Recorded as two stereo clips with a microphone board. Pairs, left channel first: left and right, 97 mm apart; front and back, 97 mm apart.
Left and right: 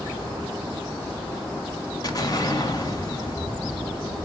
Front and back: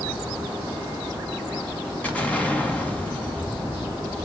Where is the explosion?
70° left, 1.5 m.